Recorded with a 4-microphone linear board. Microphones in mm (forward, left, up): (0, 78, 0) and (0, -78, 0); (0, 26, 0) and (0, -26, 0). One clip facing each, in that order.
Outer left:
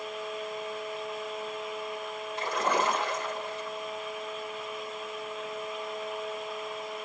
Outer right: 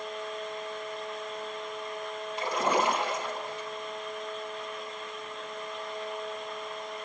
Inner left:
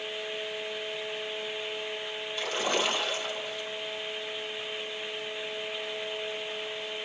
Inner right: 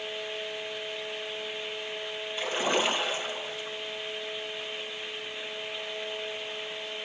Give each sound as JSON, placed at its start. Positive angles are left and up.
{"t": 2.4, "sound": "a splash", "side_deg": -15, "distance_m": 2.5}